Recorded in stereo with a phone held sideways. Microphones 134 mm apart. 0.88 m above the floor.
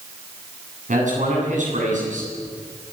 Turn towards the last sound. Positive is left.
turn(degrees=-80)